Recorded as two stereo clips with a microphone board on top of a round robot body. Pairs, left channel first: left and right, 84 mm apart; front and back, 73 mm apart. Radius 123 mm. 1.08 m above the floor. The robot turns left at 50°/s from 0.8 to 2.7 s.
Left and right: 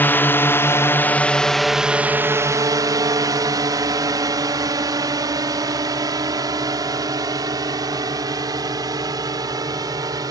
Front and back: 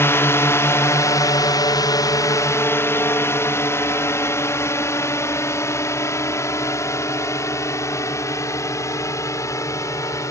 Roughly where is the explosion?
I don't hear an explosion.